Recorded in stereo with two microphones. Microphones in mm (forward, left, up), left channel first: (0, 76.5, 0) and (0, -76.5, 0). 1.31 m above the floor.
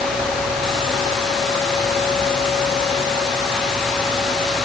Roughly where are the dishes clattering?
No dishes clattering in this recording.